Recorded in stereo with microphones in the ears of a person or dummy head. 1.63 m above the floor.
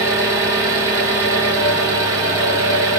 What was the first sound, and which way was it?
An engine running, 15° right (ahead or behind).